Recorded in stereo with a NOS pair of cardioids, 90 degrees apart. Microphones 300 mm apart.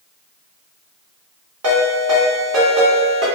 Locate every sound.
1.6 s a ringtone: 50° right, 2.0 m